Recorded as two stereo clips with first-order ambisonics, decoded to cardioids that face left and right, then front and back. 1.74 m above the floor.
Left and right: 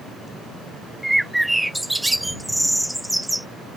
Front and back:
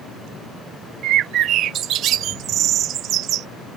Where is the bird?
175° right.